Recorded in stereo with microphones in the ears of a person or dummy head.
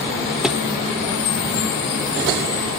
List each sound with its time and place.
0.4 s a thud: centre (ahead or behind), 1.3 m